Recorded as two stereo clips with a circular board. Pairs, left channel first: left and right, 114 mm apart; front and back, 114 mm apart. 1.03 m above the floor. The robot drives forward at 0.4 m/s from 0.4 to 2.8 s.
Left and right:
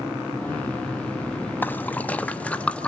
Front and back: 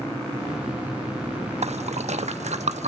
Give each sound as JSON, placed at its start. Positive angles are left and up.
{"t": 1.6, "sound": "a splash", "azimuth_deg": 165, "distance_m": 0.9}